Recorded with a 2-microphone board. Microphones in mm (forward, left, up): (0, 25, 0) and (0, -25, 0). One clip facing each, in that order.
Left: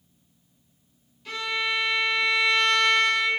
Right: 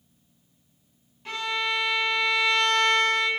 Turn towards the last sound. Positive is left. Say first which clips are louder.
# even
turn(degrees=-30)  # may be behind; listen again after turning